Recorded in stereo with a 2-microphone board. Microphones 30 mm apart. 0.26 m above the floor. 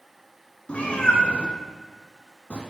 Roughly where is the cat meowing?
Left.